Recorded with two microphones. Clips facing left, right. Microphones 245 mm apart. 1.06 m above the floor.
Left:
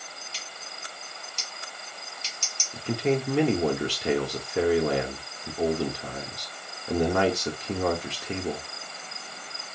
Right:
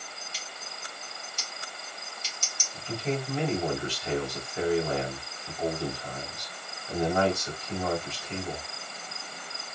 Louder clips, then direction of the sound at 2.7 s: Left 6 dB; 75° left (ahead or behind).